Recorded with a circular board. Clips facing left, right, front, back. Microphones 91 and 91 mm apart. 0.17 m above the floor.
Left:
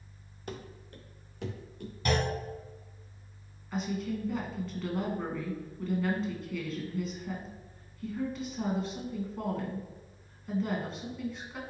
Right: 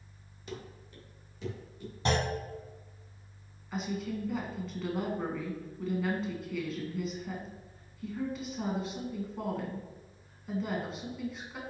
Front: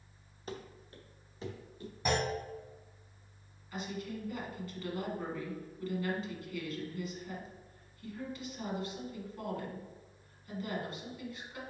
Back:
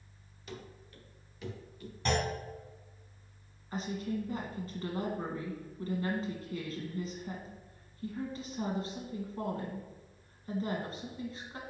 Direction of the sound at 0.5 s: 50° left.